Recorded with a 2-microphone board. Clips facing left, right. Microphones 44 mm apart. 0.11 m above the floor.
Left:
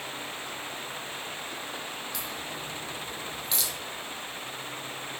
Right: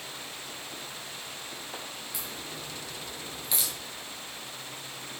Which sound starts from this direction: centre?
A crack, at 2.1 s.